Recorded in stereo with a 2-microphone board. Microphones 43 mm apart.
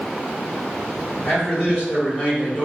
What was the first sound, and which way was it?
A man speaking, 45° left (ahead or behind).